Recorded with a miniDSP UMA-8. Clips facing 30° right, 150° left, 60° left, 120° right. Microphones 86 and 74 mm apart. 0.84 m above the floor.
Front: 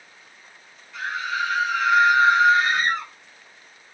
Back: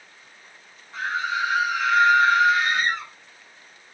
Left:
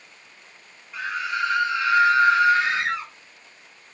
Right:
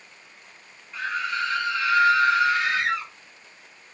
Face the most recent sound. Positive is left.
turn(degrees=0)